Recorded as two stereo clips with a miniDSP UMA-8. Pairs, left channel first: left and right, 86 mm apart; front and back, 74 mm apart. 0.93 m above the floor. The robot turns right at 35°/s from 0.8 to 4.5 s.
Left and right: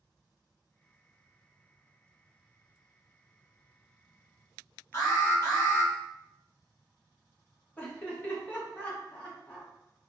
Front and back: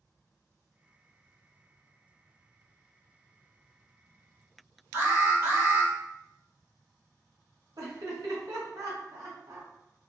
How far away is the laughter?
About 1.1 m.